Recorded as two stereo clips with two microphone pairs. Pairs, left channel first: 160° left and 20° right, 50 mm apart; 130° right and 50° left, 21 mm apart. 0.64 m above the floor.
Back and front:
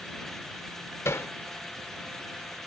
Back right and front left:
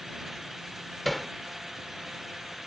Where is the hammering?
140° left.